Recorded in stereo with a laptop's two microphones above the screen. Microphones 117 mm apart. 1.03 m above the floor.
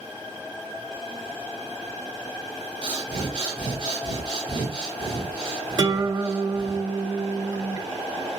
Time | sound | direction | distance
2.8 | breathing | 45° right (ahead or behind) | 0.9 m
5.8 | a guitar | 35° right (ahead or behind) | 1.0 m